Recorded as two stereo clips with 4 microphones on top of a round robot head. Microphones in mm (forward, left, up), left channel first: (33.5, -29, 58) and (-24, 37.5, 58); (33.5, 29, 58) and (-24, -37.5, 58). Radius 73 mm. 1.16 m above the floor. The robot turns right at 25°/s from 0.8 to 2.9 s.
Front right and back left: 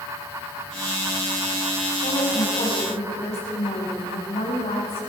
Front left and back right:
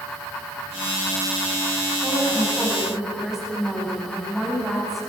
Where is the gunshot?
I don't hear a gunshot.